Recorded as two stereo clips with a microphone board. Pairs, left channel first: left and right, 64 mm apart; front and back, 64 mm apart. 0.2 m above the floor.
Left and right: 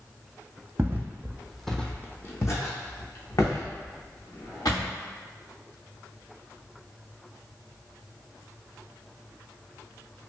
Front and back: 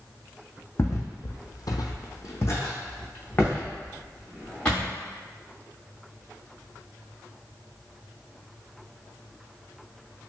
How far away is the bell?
No bell in this recording.